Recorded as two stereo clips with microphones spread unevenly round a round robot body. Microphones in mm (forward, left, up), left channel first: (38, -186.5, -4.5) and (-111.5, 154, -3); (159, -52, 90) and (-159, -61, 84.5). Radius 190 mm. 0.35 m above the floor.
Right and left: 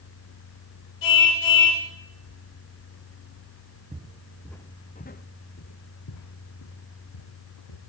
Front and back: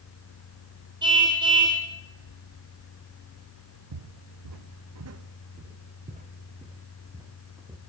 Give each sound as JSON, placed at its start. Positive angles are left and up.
{"t": 1.0, "sound": "a car horn", "azimuth_deg": -100, "distance_m": 8.0}
{"t": 3.9, "sound": "footsteps", "azimuth_deg": -170, "distance_m": 1.5}